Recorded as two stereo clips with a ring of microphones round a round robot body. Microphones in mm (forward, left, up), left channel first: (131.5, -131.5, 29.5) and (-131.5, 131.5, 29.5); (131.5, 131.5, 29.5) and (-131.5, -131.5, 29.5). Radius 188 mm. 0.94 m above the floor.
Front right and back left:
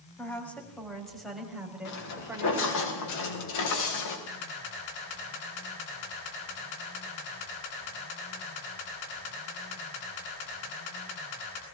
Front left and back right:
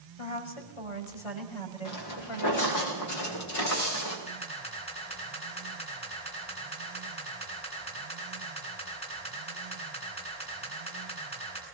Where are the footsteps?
5° left, 6 m; by 4.2 s straight ahead, 7.5 m.